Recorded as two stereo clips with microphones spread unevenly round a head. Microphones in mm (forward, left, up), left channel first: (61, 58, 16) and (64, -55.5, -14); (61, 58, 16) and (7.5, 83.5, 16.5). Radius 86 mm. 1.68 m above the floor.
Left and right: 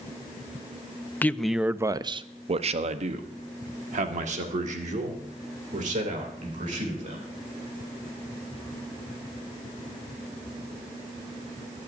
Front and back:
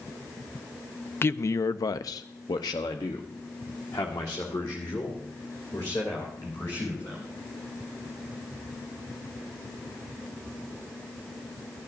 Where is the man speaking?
25° left, 0.6 m; by 7.3 s 90° right, 3.5 m.